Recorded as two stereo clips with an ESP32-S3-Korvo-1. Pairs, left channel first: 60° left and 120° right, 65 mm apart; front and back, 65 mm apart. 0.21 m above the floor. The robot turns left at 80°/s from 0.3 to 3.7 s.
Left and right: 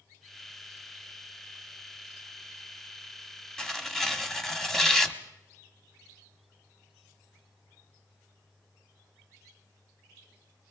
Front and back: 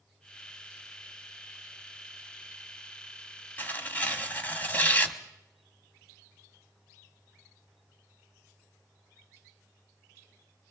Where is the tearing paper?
5° right, 1.3 m; by 5.2 s 15° right, 1.3 m.